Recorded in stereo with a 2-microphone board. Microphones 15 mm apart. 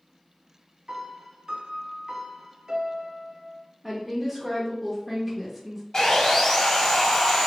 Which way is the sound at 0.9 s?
45° right (ahead or behind).